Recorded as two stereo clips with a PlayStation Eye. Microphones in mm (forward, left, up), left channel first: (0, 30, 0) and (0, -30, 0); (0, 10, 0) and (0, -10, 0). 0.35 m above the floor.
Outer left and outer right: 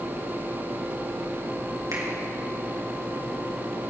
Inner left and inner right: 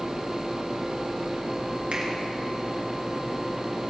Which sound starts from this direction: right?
A finger snap, at 1.9 s.